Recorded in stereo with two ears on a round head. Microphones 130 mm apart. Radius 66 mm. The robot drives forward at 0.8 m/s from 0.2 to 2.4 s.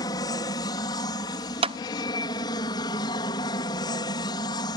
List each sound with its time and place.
0.0 s an aircraft: 25° left (ahead or behind); by 4.8 s 30° left (ahead or behind)
1.6 s a clap: 40° right (ahead or behind); by 1.8 s 35° right (ahead or behind)